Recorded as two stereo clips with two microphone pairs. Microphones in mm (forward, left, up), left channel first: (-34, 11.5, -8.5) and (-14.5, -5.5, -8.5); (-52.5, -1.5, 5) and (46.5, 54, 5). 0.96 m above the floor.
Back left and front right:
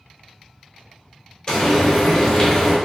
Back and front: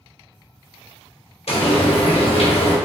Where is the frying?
165° right, 1.3 m.